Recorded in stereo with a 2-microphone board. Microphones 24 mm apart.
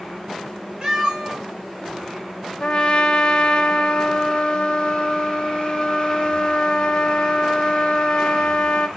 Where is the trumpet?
40° left (ahead or behind), 0.5 m.